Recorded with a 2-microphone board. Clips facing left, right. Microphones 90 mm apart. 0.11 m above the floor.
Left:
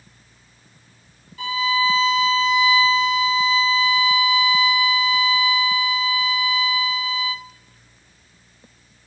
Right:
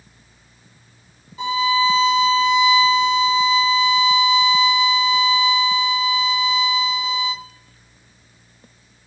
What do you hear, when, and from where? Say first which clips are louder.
1.4 s a violin: right 3 dB; 20° right (ahead or behind), 0.7 m